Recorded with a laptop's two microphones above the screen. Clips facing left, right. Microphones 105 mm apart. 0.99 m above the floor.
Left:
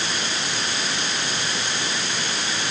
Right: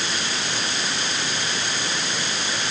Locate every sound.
Only background noise.